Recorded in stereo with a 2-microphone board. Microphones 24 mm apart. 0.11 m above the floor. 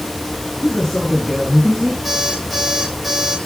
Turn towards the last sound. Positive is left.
turn(degrees=-5)  # may be behind; listen again after turning